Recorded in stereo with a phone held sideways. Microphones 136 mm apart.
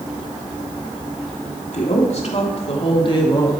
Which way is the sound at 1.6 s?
65° left (ahead or behind).